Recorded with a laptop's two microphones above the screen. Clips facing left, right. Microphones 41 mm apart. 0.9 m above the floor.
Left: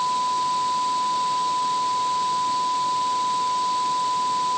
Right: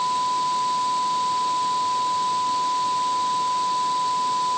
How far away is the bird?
I don't hear a bird.